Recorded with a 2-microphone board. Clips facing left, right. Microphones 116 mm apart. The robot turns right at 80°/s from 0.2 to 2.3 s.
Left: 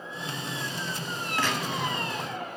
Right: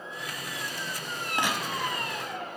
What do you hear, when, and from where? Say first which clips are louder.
1.4 s a gunshot: left 1 dB; 20° right, 1.6 m; by 2.5 s 55° left, 1.6 m